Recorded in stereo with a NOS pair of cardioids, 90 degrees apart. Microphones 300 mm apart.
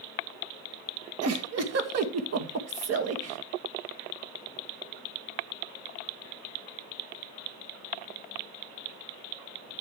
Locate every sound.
1.2 s a giggle: 55° right, 1.7 m